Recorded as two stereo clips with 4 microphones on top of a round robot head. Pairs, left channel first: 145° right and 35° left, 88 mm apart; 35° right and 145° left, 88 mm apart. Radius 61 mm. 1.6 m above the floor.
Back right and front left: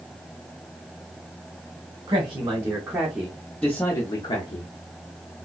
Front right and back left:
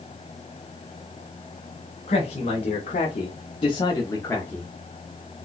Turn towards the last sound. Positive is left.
turn(degrees=-115)